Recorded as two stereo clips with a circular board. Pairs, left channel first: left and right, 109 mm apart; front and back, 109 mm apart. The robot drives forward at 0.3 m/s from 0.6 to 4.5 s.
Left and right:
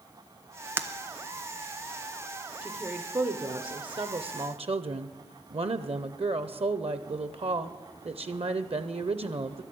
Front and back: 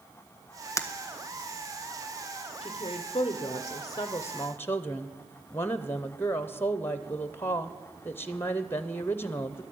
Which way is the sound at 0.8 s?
35° right.